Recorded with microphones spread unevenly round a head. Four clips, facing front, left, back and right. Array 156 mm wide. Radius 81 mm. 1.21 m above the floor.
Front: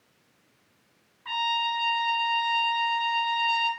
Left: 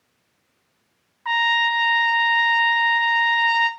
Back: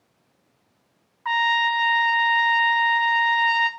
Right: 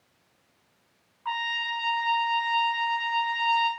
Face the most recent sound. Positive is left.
turn(degrees=130)